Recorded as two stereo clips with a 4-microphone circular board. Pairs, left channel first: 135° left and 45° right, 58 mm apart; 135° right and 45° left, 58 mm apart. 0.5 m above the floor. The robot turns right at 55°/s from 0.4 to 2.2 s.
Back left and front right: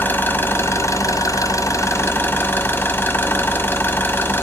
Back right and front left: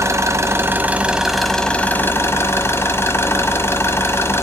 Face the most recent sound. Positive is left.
turn(degrees=180)